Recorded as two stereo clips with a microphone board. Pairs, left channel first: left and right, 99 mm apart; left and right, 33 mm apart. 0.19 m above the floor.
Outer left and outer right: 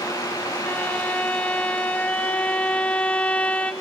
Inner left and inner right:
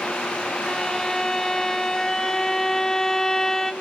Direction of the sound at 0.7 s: 15° left (ahead or behind).